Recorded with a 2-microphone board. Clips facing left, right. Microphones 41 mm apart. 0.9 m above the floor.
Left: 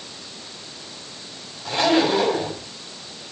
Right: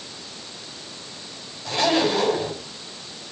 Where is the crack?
I don't hear a crack.